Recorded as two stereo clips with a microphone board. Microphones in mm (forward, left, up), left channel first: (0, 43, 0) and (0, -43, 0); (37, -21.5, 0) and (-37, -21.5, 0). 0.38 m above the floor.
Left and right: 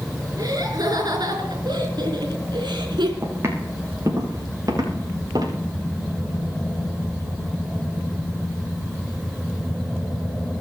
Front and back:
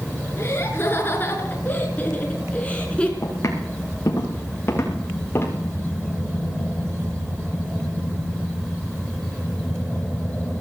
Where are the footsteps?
35° right, 7 m; by 5.6 s 55° right, 8 m.